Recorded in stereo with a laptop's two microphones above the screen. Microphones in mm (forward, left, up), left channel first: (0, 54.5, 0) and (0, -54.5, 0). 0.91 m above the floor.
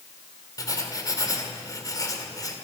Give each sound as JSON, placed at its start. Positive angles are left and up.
{"t": 0.6, "sound": "writing", "side_deg": 35, "distance_m": 2.0}